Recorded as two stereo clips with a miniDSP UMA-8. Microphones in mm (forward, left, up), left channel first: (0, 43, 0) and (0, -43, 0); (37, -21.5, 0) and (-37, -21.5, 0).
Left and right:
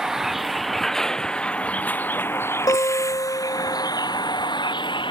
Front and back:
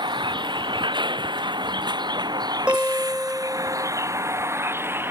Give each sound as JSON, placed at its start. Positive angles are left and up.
{"t": 0.0, "sound": "a vehicle", "azimuth_deg": -175}
{"t": 2.7, "sound": "a guitar", "azimuth_deg": 110}